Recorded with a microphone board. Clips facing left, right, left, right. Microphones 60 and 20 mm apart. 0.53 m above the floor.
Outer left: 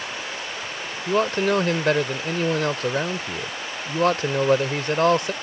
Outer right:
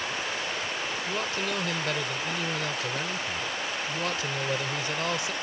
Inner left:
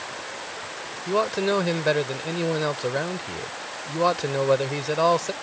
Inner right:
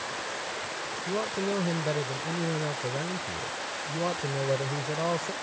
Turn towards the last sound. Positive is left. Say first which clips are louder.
# outer left 13 dB, inner left 8 dB
turn(degrees=55)  # may be behind; listen again after turning